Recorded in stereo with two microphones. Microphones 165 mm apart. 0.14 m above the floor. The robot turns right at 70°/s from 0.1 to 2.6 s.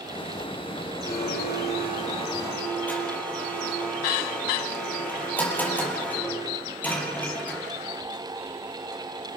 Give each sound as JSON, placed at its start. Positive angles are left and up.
{"t": 1.1, "sound": "a blender", "azimuth_deg": 65, "distance_m": 5.0}